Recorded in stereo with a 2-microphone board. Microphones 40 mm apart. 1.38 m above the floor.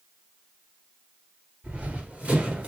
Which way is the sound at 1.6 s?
25° right (ahead or behind).